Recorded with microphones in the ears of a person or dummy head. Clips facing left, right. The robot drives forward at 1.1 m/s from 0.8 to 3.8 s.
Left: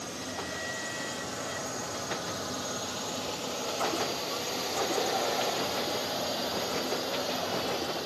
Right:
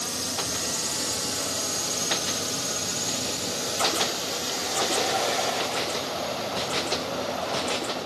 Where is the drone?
60° right (ahead or behind); by 8.1 s 15° left (ahead or behind).